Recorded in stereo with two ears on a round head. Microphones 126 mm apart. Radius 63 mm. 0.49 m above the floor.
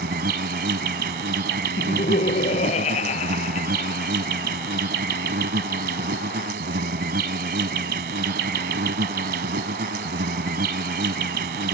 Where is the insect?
75° right (ahead or behind).